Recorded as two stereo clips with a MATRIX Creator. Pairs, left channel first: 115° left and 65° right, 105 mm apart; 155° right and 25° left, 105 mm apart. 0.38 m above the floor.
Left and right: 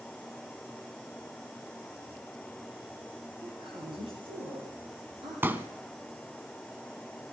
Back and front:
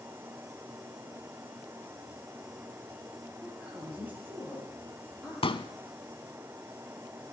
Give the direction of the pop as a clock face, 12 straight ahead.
4 o'clock.